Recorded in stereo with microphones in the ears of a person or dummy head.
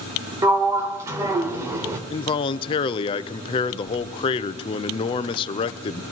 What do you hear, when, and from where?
0.4 s a sliding door: 20° right (ahead or behind), 1.2 m
2.1 s a man speaking: 30° left (ahead or behind), 0.6 m